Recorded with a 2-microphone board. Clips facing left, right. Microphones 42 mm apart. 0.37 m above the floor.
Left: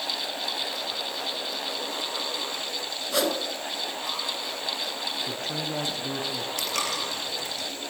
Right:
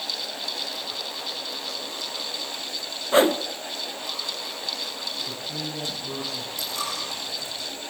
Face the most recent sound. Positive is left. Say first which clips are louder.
# left 1 dB
turn(degrees=60)  # may be behind; listen again after turning